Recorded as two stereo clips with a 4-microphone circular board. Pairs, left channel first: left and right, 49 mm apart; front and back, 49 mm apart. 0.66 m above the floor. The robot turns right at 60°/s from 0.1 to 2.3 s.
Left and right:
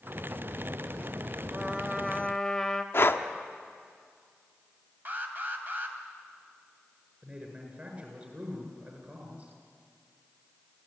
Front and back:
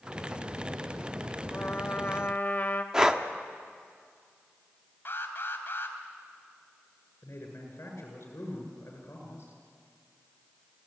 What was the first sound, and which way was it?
A trumpet, 30° right.